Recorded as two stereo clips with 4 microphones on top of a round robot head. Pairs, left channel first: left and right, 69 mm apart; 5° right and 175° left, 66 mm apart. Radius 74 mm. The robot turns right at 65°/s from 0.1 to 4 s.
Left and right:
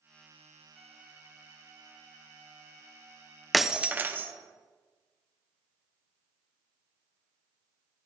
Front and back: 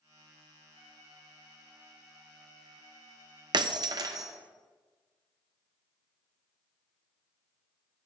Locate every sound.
0.7 s a violin: 175° left, 2.5 m; by 3.4 s 10° right, 2.5 m
3.5 s breaking glass: straight behind, 0.9 m; by 4.3 s 150° right, 0.9 m